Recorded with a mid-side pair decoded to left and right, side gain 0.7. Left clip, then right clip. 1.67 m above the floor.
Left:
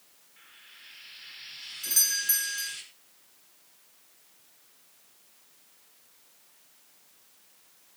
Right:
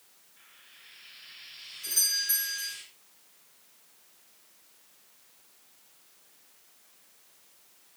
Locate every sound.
0.4 s frying: 45° left, 5.5 m
1.8 s a doorbell: 35° left, 5 m